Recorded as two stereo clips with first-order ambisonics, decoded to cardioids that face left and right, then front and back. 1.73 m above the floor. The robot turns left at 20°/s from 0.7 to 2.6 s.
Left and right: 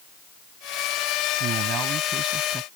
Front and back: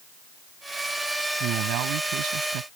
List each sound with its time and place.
1.4 s a man speaking: 140° right; by 2.7 s 165° right